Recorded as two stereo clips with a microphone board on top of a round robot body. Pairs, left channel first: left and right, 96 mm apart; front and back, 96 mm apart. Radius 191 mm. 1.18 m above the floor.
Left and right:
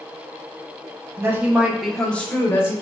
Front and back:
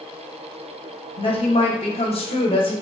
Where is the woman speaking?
25° right, 0.9 m; by 2.7 s 25° left, 1.2 m.